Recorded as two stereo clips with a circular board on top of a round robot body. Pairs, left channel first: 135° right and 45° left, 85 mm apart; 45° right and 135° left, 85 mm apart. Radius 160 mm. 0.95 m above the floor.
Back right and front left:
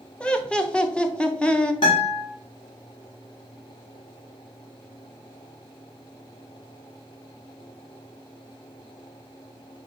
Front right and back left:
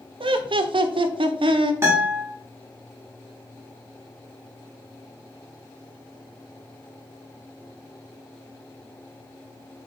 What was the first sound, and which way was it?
Laughter, 145° left.